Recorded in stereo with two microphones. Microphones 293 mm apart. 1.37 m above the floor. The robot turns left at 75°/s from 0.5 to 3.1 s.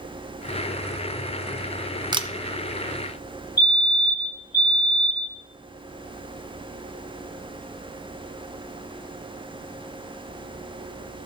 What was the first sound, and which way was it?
A camera shutter, 15° right (ahead or behind).